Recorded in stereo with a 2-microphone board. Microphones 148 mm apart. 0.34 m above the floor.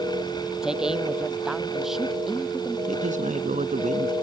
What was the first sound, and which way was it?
A man speaking, 5° right (ahead or behind).